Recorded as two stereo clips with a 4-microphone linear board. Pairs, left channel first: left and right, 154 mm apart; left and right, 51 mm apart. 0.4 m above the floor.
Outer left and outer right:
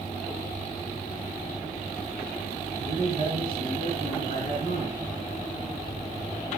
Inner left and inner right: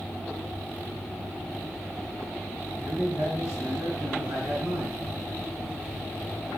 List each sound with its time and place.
2.8 s a man speaking: 55° right (ahead or behind), 6 m